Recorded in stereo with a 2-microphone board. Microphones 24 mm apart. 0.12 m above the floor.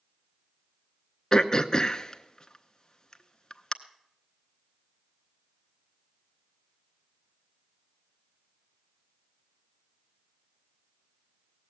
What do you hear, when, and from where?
1.3 s throat clearing: 30° left (ahead or behind), 0.6 m